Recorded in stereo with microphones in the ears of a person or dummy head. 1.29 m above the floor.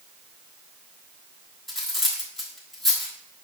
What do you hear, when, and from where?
1.7 s cutlery clinking: centre (ahead or behind), 1.3 m